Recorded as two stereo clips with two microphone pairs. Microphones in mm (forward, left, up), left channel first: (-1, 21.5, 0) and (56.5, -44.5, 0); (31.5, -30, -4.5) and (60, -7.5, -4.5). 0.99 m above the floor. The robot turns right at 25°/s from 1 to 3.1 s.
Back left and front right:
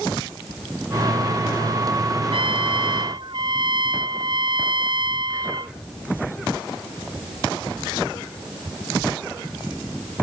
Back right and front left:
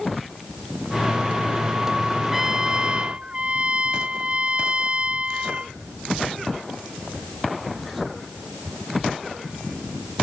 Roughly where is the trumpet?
Ahead right.